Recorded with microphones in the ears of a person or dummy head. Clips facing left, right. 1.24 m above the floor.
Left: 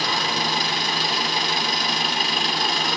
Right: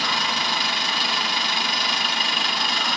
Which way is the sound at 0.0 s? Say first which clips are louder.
Left 2 dB; 35° left (ahead or behind).